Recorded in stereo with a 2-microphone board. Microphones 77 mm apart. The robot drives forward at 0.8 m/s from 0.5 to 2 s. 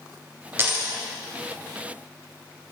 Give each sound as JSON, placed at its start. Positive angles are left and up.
{"t": 0.6, "sound": "a dropped coin", "side_deg": -35, "distance_m": 1.0}